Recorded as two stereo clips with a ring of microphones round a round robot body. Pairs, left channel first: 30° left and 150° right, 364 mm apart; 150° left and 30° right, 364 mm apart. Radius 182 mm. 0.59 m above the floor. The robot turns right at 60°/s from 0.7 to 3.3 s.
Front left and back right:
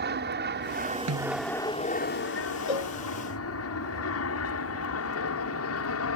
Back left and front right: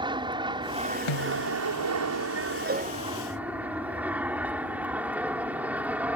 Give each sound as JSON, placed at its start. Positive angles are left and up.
{"t": 0.0, "sound": "an aircraft", "azimuth_deg": -100}
{"t": 1.1, "sound": "a snare drum", "azimuth_deg": 160}
{"t": 2.7, "sound": "a cowbell", "azimuth_deg": 35}